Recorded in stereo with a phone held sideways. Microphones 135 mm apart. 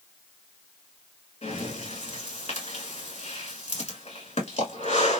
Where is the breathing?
50° left (ahead or behind), 1.9 m.